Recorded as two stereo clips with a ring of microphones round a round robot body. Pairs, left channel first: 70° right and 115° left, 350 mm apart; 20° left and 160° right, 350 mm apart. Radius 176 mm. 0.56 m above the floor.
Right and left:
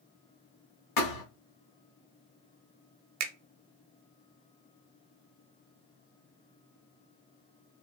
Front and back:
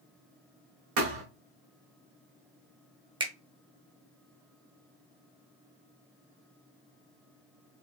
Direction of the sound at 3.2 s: 130° left.